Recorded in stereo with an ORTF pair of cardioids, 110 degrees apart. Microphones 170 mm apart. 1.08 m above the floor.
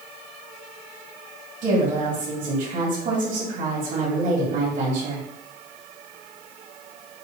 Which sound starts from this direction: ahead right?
A woman speaking, at 1.6 s.